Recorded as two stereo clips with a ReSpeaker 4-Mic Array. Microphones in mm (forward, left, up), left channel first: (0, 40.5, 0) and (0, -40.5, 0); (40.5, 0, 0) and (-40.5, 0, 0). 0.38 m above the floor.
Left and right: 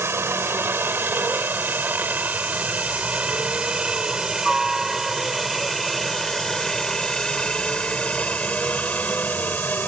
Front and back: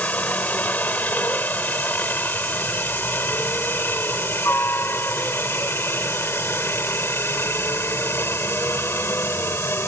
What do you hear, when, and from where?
0.0 s a helicopter: 60° right; by 9.9 s 40° left